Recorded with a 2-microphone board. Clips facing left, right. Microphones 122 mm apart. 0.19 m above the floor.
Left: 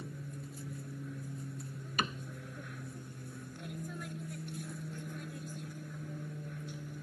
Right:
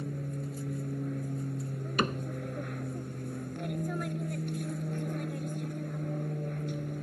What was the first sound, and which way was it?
An aircraft, 55° right (ahead or behind).